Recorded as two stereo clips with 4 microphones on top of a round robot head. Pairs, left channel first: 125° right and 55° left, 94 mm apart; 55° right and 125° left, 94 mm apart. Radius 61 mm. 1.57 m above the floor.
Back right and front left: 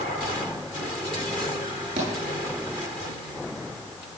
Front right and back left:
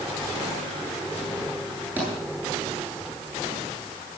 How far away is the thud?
About 9 m.